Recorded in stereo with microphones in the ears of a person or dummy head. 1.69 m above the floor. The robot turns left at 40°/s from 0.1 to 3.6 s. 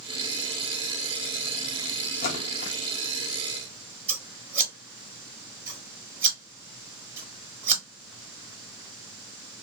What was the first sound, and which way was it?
A splash, 40° left (ahead or behind).